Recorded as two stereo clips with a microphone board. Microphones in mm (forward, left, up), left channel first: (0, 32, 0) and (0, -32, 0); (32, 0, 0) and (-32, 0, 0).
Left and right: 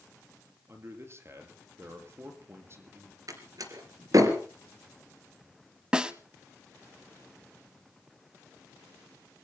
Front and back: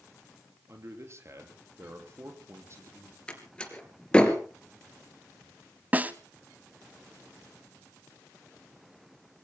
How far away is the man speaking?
About 3.5 m.